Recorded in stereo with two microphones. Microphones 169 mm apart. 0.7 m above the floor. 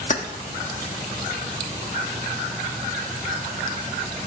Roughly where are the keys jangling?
Left.